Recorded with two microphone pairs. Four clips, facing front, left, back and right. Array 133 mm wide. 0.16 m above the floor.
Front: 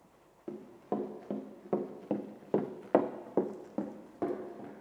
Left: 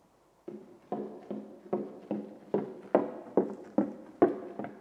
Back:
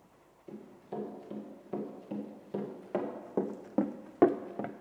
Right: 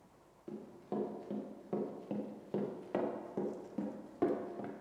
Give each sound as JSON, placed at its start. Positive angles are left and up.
{"t": 0.5, "sound": "running footsteps", "azimuth_deg": 20, "distance_m": 2.0}